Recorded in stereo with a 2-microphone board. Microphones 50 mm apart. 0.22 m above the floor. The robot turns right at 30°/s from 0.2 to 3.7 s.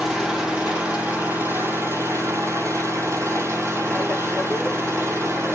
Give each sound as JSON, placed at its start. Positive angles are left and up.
{"t": 0.0, "sound": "an engine running", "azimuth_deg": -165, "distance_m": 2.5}